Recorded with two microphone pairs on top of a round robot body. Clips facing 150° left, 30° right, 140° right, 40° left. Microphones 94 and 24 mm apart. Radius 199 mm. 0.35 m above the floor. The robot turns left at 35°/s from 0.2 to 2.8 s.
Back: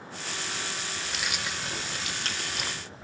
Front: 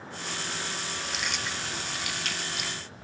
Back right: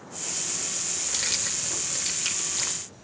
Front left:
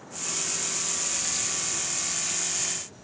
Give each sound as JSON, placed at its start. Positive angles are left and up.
{"t": 1.0, "sound": "keys jangling", "azimuth_deg": -125, "distance_m": 1.5}